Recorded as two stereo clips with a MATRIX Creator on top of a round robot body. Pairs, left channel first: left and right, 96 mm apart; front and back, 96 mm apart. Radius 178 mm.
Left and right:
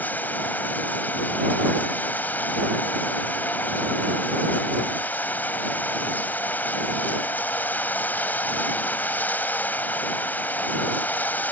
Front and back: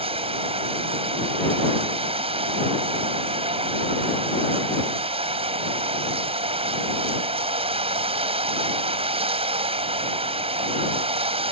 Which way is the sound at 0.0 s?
165° left.